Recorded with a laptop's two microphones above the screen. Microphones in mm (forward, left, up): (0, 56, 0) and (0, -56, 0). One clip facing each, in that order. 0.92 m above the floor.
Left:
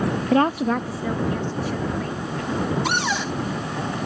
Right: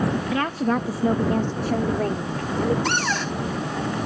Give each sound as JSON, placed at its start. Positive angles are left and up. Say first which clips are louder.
{"t": 0.3, "sound": "a woman speaking", "louder": "left 8 dB", "side_deg": 40}
{"t": 2.9, "sound": "a cupboard door", "louder": "even", "side_deg": 10}